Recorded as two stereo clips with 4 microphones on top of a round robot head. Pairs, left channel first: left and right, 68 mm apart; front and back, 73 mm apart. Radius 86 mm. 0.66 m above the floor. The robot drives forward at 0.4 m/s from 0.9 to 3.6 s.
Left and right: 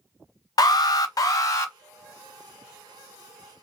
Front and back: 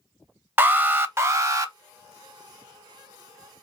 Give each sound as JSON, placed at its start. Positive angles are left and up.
{"t": 0.6, "sound": "an alarm", "azimuth_deg": 120, "distance_m": 0.5}